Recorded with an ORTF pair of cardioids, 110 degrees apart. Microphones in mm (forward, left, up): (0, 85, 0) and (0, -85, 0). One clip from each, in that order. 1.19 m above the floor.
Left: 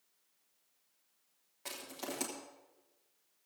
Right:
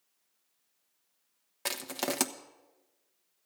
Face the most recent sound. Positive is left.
turn(degrees=-70)